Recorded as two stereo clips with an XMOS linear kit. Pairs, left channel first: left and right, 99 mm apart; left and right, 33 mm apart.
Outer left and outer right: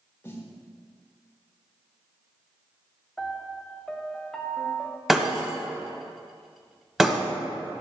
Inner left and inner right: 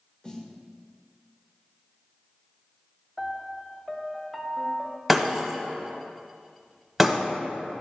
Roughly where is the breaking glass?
Centre.